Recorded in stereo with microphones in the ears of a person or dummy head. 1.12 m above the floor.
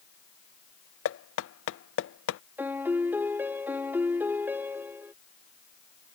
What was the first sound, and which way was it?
Knocking, 65° left (ahead or behind).